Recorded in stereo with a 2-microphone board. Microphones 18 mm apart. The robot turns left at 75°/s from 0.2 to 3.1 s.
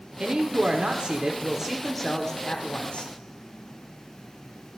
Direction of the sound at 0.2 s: 55° right.